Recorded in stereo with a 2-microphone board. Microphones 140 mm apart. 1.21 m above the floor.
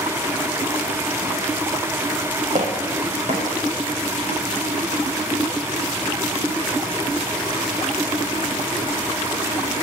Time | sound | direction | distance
2.5 | footsteps | 50° right (ahead or behind) | 4 m